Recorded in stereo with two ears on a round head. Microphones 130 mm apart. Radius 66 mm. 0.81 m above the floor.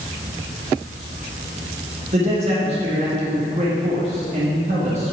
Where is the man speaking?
45° right (ahead or behind), 1.6 m.